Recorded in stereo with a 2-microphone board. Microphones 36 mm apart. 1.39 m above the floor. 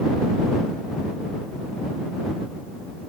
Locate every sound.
Only background noise.